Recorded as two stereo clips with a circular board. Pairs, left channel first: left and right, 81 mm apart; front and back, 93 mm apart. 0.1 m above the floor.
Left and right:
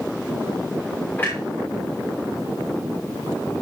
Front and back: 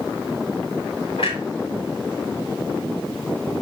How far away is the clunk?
About 5 m.